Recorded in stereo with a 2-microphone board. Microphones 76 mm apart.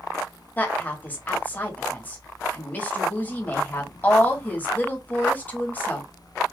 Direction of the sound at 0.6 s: 20° left (ahead or behind).